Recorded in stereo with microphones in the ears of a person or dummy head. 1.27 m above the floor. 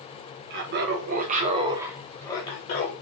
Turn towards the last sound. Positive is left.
turn(degrees=45)  # may be behind; listen again after turning